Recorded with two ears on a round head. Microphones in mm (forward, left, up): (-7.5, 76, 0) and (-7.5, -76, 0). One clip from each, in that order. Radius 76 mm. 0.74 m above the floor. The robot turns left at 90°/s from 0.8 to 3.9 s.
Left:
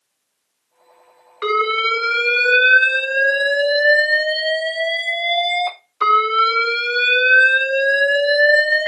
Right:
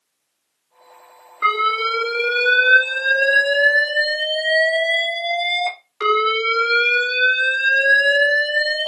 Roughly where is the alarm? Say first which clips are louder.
Even; left.